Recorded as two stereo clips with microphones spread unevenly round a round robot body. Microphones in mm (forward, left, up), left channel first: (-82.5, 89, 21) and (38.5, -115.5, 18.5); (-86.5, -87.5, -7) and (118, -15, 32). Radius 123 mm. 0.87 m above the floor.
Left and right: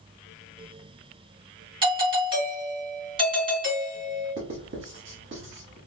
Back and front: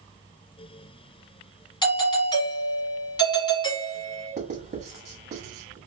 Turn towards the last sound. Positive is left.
turn(degrees=-25)